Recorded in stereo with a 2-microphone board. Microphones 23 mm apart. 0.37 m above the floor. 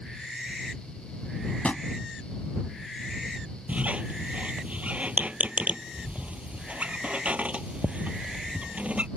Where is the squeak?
70° right (ahead or behind).